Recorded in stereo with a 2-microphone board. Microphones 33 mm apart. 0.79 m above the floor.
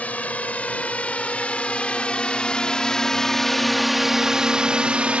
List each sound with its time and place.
0.0 s a drone: 55° left (ahead or behind); by 5.2 s 40° right (ahead or behind)